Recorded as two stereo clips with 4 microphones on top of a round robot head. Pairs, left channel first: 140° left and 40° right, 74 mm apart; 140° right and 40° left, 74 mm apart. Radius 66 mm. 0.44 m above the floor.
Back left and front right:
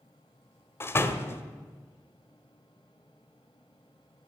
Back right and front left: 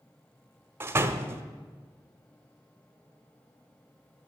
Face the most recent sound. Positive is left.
turn(degrees=90)